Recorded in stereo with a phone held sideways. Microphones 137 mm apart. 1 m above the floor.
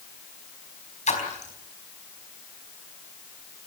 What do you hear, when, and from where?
1.1 s a splash: 55° left (ahead or behind), 4 m